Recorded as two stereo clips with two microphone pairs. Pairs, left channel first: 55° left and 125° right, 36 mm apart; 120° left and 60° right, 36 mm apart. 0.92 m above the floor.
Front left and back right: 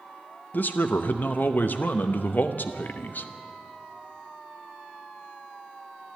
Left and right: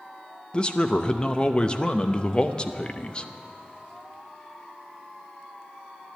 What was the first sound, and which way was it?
A man speaking, 55° left.